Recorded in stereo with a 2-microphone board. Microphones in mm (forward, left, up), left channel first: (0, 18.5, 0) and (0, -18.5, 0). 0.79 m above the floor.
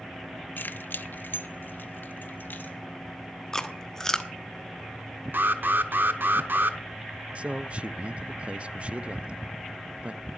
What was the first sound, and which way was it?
Keys jangling, 70° left (ahead or behind).